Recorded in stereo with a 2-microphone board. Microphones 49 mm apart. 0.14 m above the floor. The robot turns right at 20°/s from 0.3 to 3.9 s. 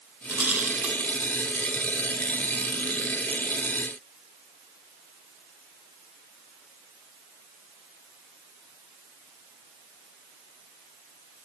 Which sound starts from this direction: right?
A rattle, at 0.3 s.